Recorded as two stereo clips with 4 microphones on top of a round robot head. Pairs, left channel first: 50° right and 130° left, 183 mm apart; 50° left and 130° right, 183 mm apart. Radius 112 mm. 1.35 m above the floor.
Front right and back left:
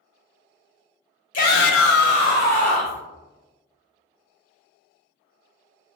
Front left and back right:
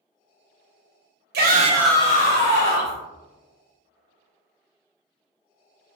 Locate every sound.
1.3 s a shout: 95° right, 0.8 m; by 3.0 s 35° left, 1.5 m